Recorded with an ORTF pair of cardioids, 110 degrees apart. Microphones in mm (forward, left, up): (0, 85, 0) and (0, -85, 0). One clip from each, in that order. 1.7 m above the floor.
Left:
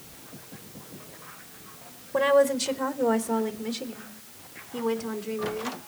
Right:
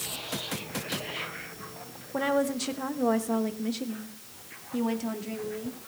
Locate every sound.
2.1 s a woman speaking: 25° left, 1.5 m; by 5.8 s 5° right, 4 m